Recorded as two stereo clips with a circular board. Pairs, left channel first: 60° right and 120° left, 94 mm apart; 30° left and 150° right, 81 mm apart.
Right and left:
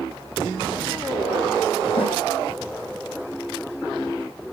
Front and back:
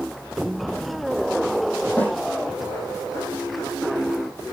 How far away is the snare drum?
About 6 m.